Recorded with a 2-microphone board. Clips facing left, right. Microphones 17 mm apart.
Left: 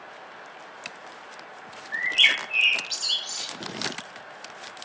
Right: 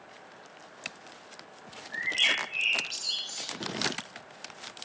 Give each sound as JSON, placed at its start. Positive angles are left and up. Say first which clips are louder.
{"t": 1.9, "sound": "a bird", "louder": "left 6 dB", "side_deg": 35, "distance_m": 0.9}